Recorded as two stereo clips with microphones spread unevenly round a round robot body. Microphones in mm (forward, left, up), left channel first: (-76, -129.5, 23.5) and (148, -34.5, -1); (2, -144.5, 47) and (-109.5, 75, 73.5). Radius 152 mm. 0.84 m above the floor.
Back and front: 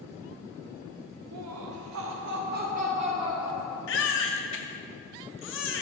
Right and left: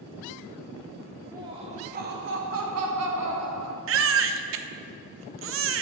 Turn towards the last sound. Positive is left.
turn(degrees=150)